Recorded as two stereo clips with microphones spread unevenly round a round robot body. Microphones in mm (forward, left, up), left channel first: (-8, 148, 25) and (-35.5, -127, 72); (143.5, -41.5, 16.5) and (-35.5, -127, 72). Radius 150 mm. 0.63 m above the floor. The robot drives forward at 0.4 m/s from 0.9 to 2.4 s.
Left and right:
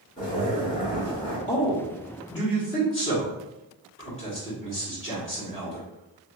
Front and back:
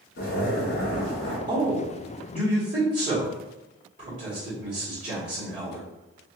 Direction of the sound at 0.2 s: 10° left.